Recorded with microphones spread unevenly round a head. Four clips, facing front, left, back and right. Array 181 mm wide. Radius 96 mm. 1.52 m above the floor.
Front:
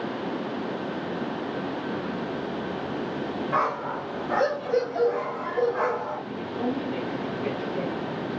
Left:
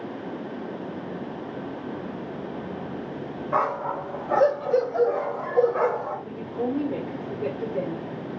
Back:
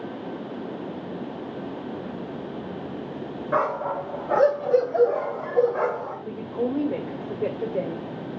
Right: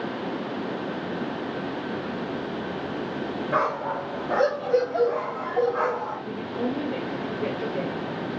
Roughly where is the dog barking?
Behind.